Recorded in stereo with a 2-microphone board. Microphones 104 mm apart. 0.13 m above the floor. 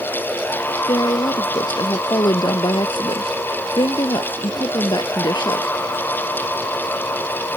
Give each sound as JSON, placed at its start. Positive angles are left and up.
{"t": 0.9, "sound": "a woman speaking", "side_deg": 45}